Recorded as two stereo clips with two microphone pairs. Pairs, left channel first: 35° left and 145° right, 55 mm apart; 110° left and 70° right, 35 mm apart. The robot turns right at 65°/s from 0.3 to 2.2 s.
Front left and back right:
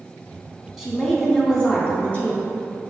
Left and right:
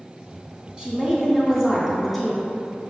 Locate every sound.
0.8 s a woman speaking: 65° right, 1.1 m; by 2.4 s 25° left, 1.1 m